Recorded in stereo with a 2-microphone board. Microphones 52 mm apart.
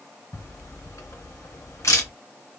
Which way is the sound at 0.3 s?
70° left (ahead or behind).